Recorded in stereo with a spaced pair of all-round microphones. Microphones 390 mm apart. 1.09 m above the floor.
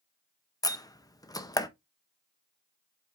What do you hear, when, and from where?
0.6 s a door slam: 10° left (ahead or behind), 0.6 m